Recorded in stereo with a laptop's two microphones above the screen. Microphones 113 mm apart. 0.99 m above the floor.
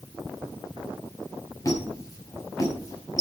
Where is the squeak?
30° left (ahead or behind), 5 m.